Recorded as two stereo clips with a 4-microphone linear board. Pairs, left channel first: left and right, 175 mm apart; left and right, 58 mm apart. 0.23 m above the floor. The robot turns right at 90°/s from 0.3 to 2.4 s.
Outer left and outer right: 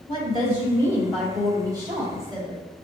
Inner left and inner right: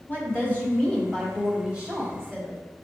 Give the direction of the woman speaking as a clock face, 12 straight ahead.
9 o'clock.